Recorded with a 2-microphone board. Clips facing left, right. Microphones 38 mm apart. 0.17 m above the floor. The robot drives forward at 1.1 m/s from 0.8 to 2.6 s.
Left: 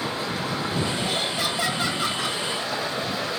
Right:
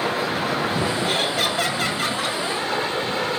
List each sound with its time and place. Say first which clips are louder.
0.0 s running water: right 5 dB; 90° right, 2.5 m; by 3.4 s 55° right (ahead or behind), 3.5 m
1.1 s laughter: right 4 dB; 70° right (ahead or behind), 3.5 m; by 2.4 s 60° right (ahead or behind), 4 m